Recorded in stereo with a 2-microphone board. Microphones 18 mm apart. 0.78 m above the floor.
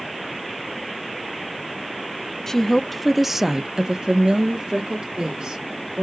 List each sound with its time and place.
2.5 s a woman speaking: 25° left (ahead or behind), 0.8 m; by 6.0 s 75° right (ahead or behind), 1.9 m